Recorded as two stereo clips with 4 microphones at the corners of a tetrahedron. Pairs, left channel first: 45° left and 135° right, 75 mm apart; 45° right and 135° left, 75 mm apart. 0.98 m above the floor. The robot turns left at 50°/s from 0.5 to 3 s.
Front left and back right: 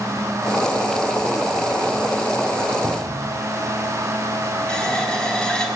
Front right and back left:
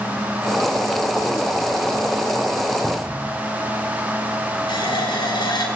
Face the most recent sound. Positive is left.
turn(degrees=-35)